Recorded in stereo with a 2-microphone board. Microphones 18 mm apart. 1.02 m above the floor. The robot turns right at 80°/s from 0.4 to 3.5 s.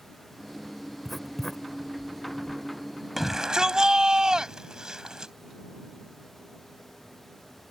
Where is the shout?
5° right (ahead or behind); by 5.3 s 35° right (ahead or behind).